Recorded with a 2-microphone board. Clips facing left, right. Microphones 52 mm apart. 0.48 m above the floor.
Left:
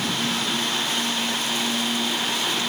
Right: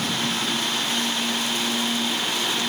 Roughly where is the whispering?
I don't hear whispering.